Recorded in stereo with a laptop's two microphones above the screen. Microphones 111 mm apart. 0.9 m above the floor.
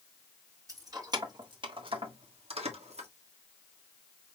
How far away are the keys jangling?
About 1.9 m.